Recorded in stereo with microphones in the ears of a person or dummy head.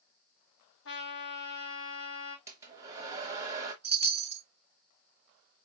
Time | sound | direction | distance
0.8 | a trumpet | 75° left (ahead or behind) | 2.5 m
2.5 | a hair dryer | 15° right (ahead or behind) | 1.0 m
3.8 | a chime | 35° right (ahead or behind) | 0.5 m